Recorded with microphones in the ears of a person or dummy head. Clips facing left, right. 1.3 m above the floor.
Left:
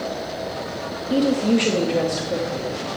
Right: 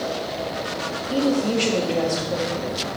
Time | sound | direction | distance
1.1 | a woman speaking | 20° left (ahead or behind) | 0.8 m